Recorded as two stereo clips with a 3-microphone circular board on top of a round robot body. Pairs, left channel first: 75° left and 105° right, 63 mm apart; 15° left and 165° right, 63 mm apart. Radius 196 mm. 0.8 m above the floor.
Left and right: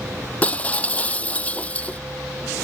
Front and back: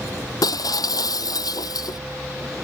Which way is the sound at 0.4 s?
10° left.